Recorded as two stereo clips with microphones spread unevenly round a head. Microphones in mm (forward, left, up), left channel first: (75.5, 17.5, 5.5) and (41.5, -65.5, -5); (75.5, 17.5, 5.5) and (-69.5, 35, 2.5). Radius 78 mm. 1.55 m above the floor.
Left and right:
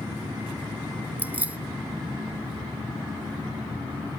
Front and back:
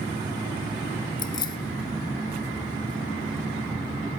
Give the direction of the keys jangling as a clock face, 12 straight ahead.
1 o'clock.